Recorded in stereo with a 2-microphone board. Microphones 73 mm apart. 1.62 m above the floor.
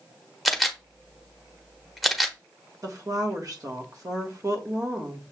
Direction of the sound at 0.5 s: Centre (ahead or behind).